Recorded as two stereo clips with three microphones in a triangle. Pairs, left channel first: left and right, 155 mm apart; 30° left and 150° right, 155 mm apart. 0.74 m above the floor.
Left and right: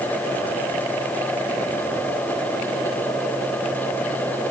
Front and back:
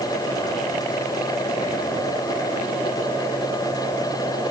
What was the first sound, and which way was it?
Only background noise.